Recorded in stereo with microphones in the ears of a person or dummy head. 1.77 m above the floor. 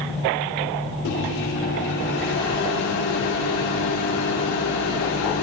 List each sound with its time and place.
1.1 s a microwave: 60° left (ahead or behind), 1.7 m